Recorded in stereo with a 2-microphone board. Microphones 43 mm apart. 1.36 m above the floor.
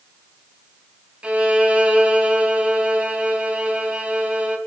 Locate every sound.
1.2 s a violin: 25° right (ahead or behind), 3 m